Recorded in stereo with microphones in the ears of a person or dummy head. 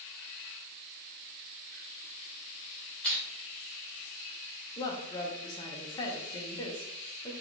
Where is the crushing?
10° left (ahead or behind), 2.5 m.